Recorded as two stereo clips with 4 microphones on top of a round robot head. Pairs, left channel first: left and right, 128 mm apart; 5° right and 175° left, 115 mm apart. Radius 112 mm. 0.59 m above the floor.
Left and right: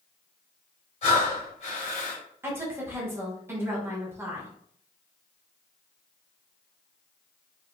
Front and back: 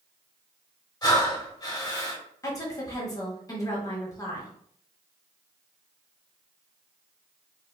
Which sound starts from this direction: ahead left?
Breathing, at 1.0 s.